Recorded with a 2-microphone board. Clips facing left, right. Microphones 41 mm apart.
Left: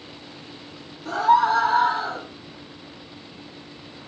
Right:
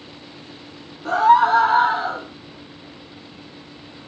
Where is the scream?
55° right (ahead or behind), 1.6 m; by 2.2 s 35° right (ahead or behind), 1.7 m.